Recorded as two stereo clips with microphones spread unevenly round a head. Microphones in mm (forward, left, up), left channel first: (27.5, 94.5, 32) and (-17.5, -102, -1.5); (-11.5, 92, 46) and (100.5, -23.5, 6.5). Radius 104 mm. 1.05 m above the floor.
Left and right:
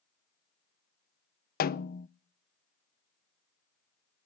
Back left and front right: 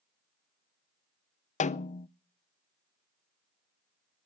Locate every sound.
1.6 s a snare drum: 100° left, 0.6 m